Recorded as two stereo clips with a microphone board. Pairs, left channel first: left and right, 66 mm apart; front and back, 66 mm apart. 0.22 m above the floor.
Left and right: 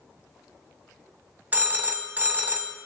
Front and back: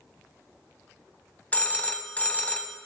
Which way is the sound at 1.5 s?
50° right.